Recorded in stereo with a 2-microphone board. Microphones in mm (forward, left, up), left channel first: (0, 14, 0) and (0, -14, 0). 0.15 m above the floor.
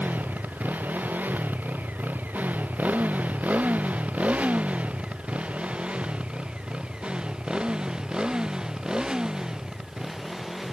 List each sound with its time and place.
0.0 s a motorcycle: 75° right (ahead or behind); by 10.7 s 20° right (ahead or behind)